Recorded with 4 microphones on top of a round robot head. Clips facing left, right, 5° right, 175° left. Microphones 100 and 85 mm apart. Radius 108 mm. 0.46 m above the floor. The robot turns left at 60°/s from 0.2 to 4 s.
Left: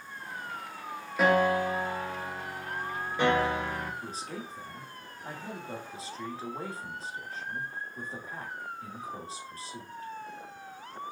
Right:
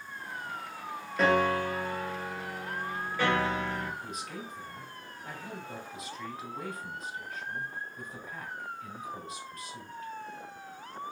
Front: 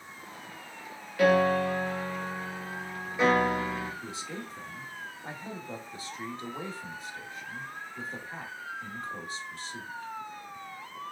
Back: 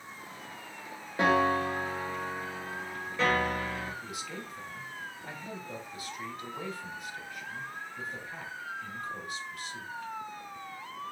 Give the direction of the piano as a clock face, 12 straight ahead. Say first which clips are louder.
Left 2 dB, front 3 dB; 6 o'clock.